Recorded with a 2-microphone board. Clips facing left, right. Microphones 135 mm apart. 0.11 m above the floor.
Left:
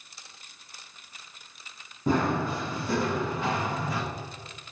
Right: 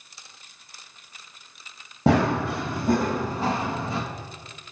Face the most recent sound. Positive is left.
turn(degrees=-25)  # may be behind; listen again after turning